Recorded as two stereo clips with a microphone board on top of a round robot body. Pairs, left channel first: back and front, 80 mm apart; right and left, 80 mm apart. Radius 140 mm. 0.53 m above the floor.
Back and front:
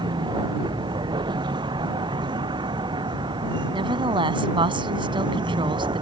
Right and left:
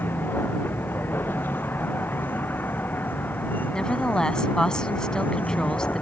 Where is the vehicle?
25° right; by 6.0 s 20° right.